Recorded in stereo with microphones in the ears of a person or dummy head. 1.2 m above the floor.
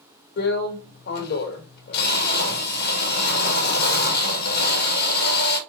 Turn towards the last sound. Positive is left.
turn(degrees=60)  # may be behind; listen again after turning